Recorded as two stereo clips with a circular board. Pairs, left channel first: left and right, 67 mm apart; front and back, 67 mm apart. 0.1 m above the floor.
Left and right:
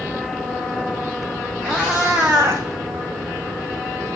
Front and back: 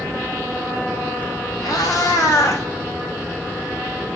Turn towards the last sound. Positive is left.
turn(degrees=-50)